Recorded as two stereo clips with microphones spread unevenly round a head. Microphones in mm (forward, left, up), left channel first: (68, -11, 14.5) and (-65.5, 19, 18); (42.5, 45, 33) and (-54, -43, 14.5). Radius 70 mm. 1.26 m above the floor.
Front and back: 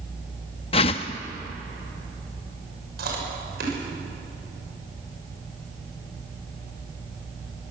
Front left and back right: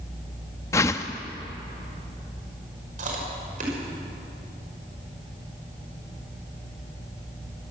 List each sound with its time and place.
0.7 s a whoosh: straight ahead, 0.7 m
3.0 s chewing: 170° right, 5.5 m